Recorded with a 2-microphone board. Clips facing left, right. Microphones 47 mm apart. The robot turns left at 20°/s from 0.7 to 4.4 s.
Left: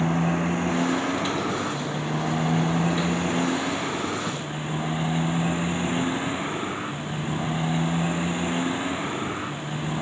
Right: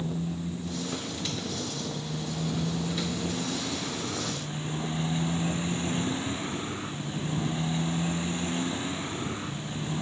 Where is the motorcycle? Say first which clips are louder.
Left 9 dB; 105° left; by 10.0 s 30° left.